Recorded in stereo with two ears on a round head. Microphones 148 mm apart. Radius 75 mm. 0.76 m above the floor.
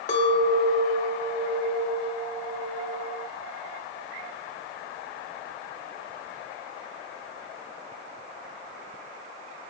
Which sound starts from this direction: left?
A clink, at 0.1 s.